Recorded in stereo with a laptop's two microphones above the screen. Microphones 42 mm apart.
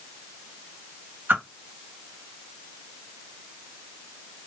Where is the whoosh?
55° right (ahead or behind), 0.7 m.